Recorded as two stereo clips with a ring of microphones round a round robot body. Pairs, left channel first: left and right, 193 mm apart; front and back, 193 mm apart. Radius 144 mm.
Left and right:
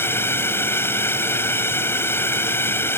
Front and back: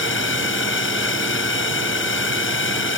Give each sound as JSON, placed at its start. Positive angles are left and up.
{"t": 0.0, "sound": "a drone", "azimuth_deg": 10}